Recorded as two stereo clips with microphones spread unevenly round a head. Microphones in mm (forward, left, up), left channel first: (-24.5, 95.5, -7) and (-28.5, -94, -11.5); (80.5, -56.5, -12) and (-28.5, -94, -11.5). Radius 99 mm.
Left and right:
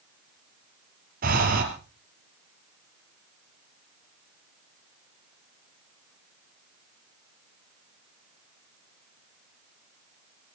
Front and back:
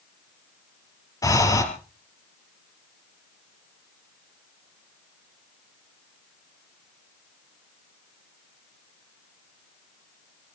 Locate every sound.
1.2 s breathing: 40° right, 3.5 m